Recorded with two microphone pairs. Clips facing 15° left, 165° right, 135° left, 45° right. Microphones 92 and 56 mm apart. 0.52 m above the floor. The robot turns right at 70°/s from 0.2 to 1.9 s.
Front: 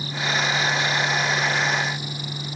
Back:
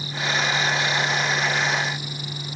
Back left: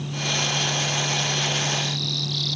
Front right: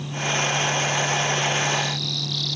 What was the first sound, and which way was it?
Only background noise.